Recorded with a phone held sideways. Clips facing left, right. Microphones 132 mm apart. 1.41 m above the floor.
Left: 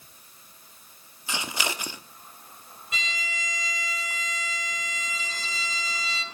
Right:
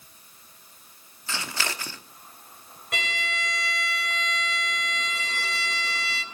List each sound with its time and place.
1.3 s scissors: 15° left (ahead or behind), 1.1 m
2.9 s a violin: 65° right (ahead or behind), 3 m